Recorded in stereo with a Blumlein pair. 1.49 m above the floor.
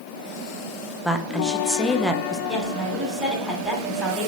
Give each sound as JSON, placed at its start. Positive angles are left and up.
{"t": 1.0, "sound": "a woman speaking", "azimuth_deg": 0, "distance_m": 0.6}
{"t": 2.5, "sound": "a woman speaking", "azimuth_deg": 0, "distance_m": 1.8}